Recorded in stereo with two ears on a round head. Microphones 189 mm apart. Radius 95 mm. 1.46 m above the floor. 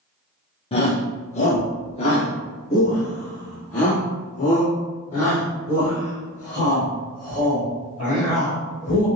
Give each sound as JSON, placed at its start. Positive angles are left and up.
{"t": 0.7, "sound": "a shout", "side_deg": 30, "distance_m": 1.0}